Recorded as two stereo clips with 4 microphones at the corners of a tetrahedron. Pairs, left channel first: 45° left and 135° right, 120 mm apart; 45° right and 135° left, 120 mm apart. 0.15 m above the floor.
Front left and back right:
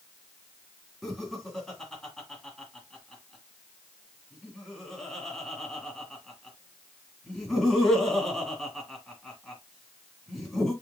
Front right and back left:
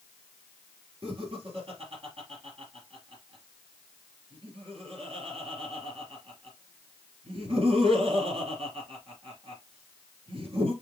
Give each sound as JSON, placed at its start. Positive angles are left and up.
{"t": 1.0, "sound": "laughter", "azimuth_deg": 135, "distance_m": 2.5}